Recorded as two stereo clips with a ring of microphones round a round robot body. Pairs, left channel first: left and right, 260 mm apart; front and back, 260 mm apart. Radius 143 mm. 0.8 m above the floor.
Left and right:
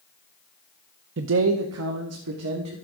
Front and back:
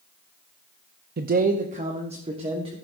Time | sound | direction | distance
1.2 | a man speaking | 130° right | 0.7 m